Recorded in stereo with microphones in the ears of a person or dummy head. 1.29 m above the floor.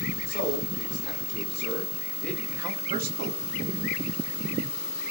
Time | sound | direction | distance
0.3 | a man speaking | 45° left (ahead or behind) | 2.0 m